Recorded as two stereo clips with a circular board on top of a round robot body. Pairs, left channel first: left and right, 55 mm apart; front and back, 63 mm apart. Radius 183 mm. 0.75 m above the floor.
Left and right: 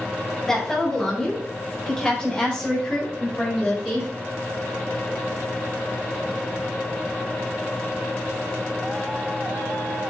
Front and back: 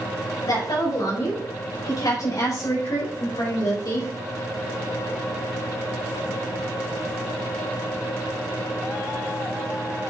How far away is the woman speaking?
About 4.5 m.